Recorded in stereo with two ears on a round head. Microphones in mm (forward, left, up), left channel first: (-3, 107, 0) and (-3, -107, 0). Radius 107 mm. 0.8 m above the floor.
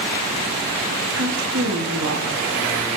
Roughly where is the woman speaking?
Right.